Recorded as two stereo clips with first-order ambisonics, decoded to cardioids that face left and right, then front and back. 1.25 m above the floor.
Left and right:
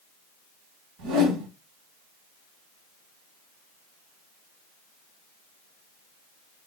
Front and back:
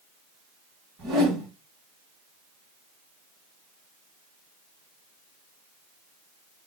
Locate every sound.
1.0 s a whoosh: 130° right, 1.7 m